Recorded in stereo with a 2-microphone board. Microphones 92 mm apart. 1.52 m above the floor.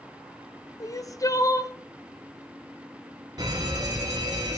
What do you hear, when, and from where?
0.8 s crying: 35° left (ahead or behind), 0.9 m
3.4 s a fire alarm: 45° right (ahead or behind), 4.5 m